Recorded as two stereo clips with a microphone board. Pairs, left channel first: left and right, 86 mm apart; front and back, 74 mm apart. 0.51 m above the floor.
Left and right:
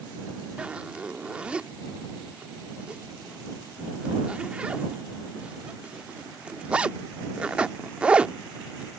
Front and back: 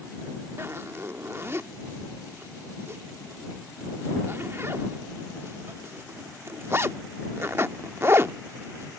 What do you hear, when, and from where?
0.6 s a zipper: 160° right